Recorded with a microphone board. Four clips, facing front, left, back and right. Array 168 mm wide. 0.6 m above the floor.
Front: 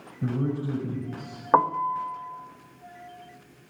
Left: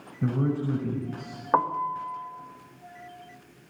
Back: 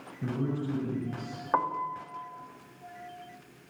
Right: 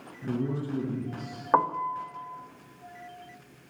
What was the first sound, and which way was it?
A man speaking, 75° left.